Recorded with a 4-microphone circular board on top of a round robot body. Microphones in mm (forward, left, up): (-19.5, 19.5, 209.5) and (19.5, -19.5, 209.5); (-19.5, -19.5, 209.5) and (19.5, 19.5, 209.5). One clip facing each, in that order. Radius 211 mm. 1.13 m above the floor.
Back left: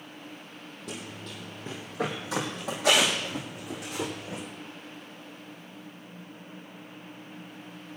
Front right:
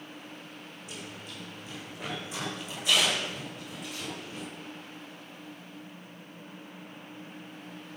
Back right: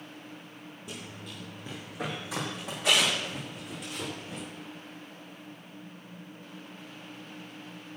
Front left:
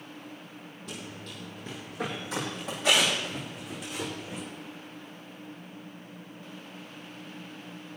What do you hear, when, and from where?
0.9 s running footsteps: 150° left, 1.6 m; by 4.4 s 130° left, 3 m